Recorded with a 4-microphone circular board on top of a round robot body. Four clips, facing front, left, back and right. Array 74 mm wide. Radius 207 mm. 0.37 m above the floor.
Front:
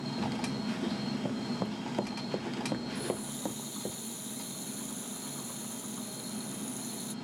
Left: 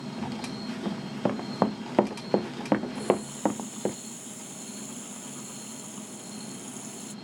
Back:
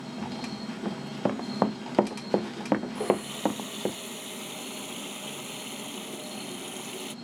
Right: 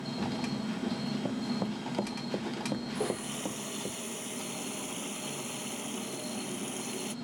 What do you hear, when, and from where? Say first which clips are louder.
0.8 s running footsteps: left 7 dB, back 4 dB; 135° left; by 4.0 s 125° left
3.0 s a running tap: left 6 dB, back 8 dB; 145° right